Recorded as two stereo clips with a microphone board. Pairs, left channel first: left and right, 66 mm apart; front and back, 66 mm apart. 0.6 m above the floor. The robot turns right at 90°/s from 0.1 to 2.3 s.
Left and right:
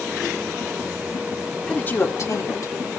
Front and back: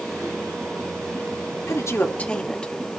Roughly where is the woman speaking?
Ahead.